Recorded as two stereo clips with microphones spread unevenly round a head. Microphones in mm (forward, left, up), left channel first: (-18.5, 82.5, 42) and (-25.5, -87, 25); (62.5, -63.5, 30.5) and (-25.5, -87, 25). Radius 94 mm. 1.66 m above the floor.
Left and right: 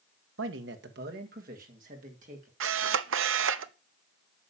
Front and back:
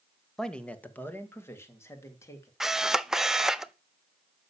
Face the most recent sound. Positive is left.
turn(degrees=-80)